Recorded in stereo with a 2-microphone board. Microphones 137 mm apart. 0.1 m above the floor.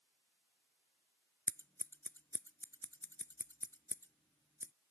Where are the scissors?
15° left (ahead or behind).